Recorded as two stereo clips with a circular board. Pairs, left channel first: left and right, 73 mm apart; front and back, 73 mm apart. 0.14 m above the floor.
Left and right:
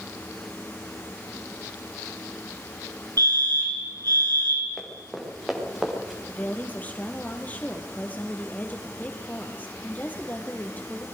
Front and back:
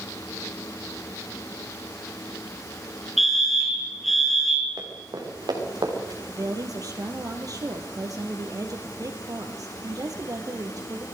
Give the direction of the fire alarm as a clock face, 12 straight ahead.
3 o'clock.